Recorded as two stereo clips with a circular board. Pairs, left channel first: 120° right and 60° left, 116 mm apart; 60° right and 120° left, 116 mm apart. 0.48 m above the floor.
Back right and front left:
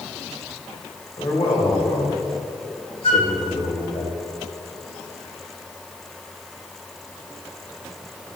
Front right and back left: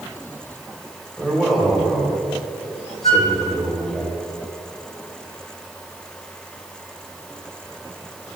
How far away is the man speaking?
About 3 m.